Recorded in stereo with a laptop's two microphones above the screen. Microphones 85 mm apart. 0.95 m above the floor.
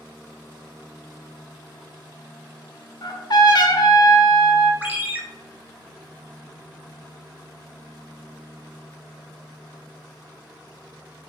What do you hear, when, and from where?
3.0 s a trumpet: 55° left (ahead or behind), 0.6 m
4.8 s a ringtone: 20° right (ahead or behind), 0.8 m